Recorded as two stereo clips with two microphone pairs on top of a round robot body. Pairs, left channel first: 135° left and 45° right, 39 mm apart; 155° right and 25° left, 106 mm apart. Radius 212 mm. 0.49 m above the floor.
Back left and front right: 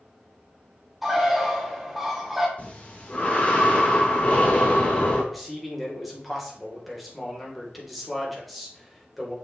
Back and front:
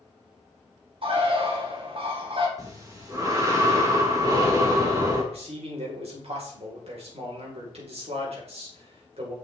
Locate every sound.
1.0 s a bird: 40° left, 1.6 m
2.6 s breathing: 80° left, 1.6 m
5.3 s a man speaking: 45° left, 2.5 m